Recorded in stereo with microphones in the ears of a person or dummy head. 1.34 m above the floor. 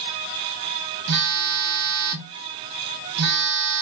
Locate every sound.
1.1 s a phone buzzing: 50° right (ahead or behind), 1.1 m